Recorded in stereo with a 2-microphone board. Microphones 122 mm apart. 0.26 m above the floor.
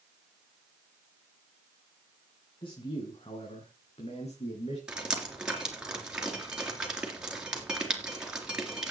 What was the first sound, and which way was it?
A man speaking, 45° left (ahead or behind).